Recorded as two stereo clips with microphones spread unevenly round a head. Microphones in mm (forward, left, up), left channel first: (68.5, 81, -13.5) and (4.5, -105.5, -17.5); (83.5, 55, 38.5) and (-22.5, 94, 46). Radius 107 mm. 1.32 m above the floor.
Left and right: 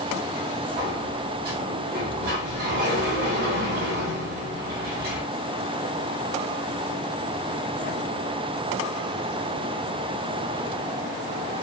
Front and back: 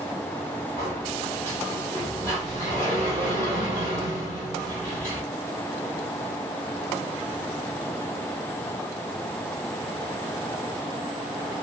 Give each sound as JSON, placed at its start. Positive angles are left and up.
{"t": 0.8, "sound": "a sliding door", "azimuth_deg": -145, "distance_m": 1.9}